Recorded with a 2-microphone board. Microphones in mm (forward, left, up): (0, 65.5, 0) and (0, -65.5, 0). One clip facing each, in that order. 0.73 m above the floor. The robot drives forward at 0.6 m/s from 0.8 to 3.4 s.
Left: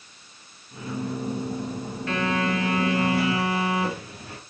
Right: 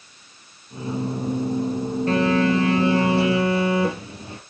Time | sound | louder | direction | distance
2.1 | a phone buzzing | right 6 dB | 35° right (ahead or behind) | 2.5 m